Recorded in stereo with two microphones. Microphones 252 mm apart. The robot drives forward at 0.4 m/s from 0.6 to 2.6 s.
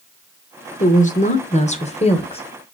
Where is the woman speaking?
30° left (ahead or behind), 0.9 m; by 2.4 s 25° left (ahead or behind), 1.2 m.